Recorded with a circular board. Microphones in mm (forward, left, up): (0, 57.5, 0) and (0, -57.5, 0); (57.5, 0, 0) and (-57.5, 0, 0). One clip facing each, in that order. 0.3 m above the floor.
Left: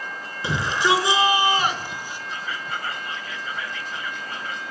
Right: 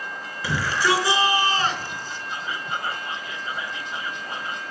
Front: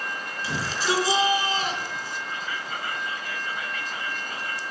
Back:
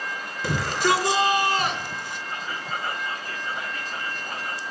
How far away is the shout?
About 4 m.